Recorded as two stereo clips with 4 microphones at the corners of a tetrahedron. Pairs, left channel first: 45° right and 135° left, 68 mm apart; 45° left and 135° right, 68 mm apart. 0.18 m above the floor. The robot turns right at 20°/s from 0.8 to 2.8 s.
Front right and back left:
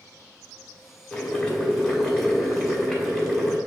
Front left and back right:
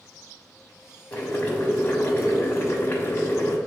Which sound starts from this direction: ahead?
Boiling, at 1.1 s.